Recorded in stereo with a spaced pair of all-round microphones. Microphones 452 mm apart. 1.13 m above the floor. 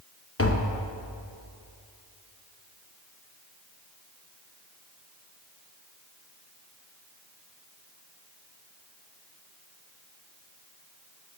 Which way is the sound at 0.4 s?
30° left (ahead or behind).